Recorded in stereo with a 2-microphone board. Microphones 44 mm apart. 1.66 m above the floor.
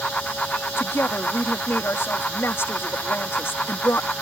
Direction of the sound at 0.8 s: 65° left (ahead or behind).